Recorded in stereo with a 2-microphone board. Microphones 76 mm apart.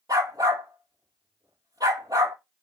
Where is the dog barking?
60° right (ahead or behind), 2 m.